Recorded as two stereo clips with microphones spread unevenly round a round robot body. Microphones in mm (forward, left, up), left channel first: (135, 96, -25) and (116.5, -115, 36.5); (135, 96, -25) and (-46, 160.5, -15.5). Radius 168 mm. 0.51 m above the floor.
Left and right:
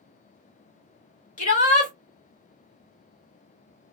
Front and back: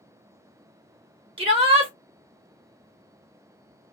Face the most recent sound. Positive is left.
turn(degrees=100)